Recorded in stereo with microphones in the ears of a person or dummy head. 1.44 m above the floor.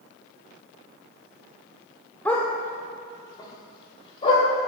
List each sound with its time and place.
2.2 s a dog barking: 10° left (ahead or behind), 1.7 m; by 4.5 s 35° left (ahead or behind), 3 m